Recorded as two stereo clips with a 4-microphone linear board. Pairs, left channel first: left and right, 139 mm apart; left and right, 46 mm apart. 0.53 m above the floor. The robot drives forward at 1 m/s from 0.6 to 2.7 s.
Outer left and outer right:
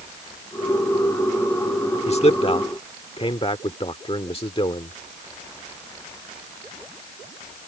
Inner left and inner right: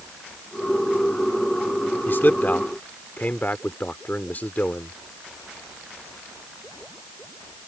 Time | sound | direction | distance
2.1 | a man speaking | 50° left (ahead or behind) | ?